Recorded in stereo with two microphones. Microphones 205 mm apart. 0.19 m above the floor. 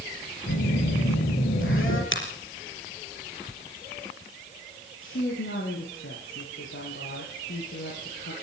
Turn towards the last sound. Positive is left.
turn(degrees=80)